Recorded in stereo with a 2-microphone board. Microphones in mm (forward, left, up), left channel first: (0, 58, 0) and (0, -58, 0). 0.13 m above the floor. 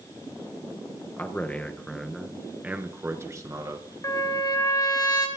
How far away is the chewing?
I don't hear chewing.